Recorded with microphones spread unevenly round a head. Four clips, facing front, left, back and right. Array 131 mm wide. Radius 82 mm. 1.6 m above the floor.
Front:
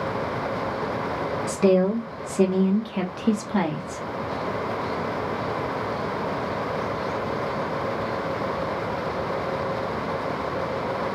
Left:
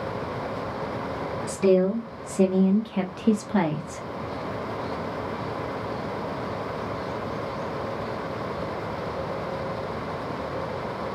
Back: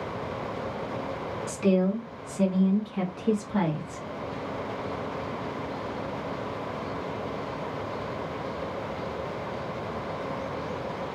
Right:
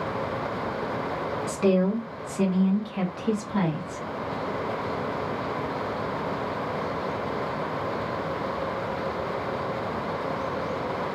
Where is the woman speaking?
15° right, 0.9 m; by 4.0 s 70° left, 1.3 m.